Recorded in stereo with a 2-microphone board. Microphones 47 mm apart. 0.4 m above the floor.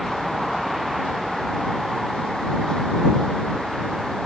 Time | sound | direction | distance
0.0 | a vehicle | 5° right (ahead or behind) | ?